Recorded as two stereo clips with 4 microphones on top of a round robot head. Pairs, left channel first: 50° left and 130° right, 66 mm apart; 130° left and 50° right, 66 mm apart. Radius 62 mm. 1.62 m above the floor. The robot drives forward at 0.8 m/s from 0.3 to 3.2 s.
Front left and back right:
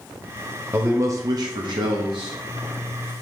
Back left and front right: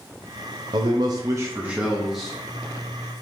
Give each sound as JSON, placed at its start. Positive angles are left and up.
{"t": 0.7, "sound": "a man speaking", "azimuth_deg": -60, "distance_m": 0.8}